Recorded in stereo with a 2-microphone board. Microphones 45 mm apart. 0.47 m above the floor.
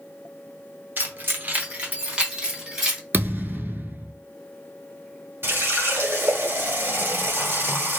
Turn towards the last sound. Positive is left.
turn(degrees=-55)  # may be behind; listen again after turning